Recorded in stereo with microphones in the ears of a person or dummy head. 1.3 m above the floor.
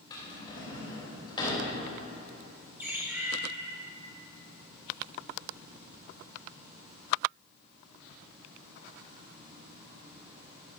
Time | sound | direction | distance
0.1 | a drawer | 25° left (ahead or behind) | 3.5 m
2.8 | a bird | 10° right (ahead or behind) | 2.5 m